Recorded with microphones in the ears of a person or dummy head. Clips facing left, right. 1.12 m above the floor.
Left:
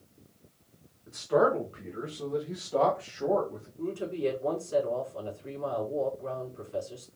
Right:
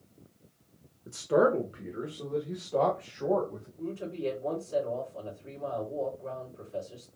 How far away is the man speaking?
About 0.7 m.